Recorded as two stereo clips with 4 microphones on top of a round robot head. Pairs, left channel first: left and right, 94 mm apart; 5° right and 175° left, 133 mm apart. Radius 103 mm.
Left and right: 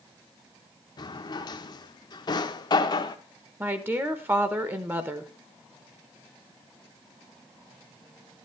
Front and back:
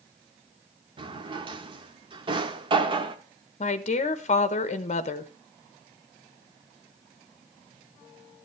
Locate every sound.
1.0 s a drawer: 125° left, 0.8 m
3.6 s a woman speaking: 25° right, 1.0 m